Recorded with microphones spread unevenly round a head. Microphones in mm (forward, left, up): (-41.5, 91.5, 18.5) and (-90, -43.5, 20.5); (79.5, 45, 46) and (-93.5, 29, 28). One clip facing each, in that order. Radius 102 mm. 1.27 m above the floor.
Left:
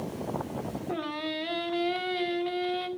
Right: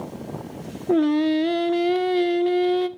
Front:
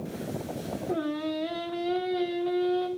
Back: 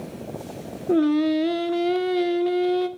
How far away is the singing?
About 0.7 m.